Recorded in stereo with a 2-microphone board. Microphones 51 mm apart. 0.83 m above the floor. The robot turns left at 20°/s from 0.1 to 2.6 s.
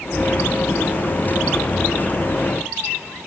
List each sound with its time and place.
Only background noise.